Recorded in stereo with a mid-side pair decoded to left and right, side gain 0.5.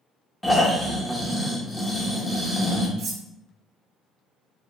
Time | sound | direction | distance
0.4 | snoring | 5° left | 0.8 m
3.0 | cutlery clinking | 65° right | 0.6 m